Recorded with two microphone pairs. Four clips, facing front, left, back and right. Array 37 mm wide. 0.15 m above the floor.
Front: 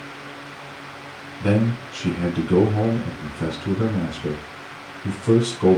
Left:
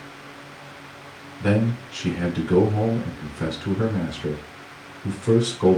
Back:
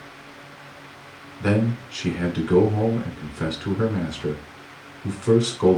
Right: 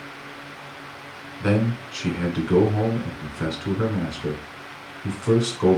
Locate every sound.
1.4 s a man speaking: 140° right, 1.6 m